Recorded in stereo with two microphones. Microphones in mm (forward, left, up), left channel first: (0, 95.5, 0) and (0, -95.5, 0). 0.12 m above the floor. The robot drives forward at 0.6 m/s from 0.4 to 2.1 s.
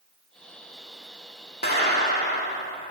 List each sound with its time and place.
1.6 s a clap: 60° left (ahead or behind), 5.5 m